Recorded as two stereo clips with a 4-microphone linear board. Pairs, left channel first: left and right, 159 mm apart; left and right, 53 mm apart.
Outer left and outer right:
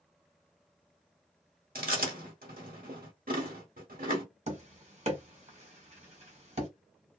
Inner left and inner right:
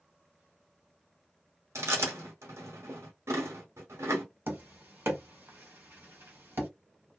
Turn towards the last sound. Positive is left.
turn(degrees=-45)  # may be behind; listen again after turning